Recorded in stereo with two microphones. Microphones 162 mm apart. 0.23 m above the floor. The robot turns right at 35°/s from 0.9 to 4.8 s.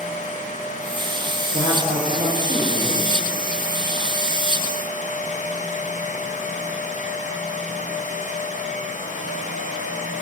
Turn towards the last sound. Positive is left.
turn(degrees=55)